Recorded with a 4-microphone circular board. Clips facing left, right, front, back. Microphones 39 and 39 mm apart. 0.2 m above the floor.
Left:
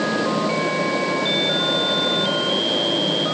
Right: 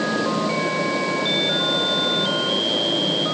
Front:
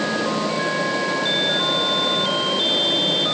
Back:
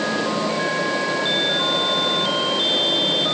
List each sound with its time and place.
Only background noise.